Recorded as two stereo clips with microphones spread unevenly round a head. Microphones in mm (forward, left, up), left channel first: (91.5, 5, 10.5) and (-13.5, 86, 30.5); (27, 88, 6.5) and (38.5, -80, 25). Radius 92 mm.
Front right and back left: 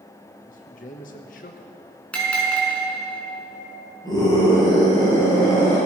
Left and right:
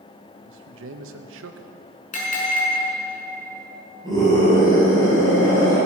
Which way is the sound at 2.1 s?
45° left.